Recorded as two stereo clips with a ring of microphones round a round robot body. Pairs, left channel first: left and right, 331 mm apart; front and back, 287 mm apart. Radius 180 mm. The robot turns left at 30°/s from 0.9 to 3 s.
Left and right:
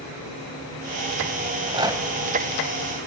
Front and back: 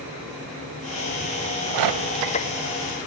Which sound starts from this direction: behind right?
A rattle, at 1.4 s.